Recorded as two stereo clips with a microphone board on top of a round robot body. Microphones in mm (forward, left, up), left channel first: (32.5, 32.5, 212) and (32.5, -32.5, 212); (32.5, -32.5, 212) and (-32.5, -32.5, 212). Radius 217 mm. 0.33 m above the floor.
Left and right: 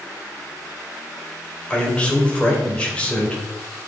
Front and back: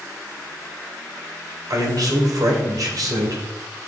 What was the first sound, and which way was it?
A man speaking, 160° left.